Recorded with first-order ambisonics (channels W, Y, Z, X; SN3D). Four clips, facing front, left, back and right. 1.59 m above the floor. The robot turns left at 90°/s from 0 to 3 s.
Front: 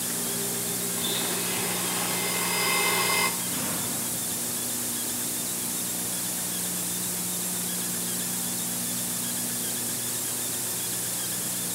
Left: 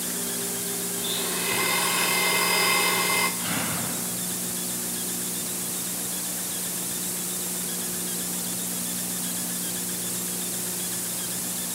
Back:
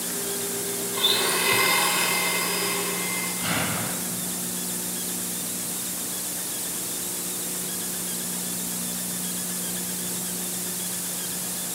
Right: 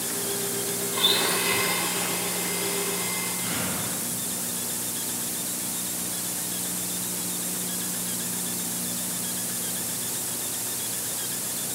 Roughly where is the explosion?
Behind.